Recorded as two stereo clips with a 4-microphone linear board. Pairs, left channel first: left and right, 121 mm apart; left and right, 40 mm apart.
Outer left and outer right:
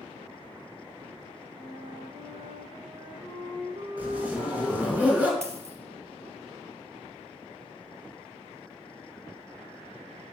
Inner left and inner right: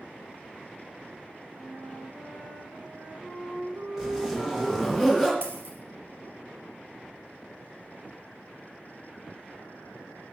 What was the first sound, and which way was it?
A flute, 80° right.